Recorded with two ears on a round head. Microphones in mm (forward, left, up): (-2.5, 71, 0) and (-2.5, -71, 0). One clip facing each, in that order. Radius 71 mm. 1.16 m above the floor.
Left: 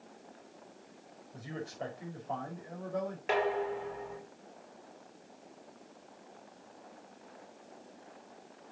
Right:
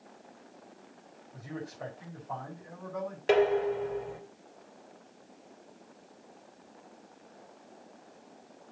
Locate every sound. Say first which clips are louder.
1.3 s a man speaking: even; 35° left (ahead or behind), 4.5 m
3.3 s dishes clattering: right 7 dB; 40° right (ahead or behind), 1.9 m